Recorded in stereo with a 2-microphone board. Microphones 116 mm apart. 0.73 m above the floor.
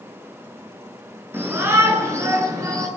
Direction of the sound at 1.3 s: 20° right (ahead or behind).